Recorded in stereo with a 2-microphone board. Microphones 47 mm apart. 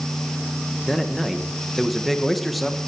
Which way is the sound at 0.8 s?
Centre (ahead or behind).